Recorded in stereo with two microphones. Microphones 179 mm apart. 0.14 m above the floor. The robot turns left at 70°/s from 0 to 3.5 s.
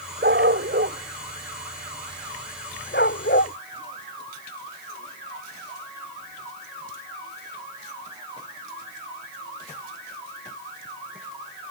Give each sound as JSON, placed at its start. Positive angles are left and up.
{"t": 0.2, "sound": "a dog barking", "side_deg": -65}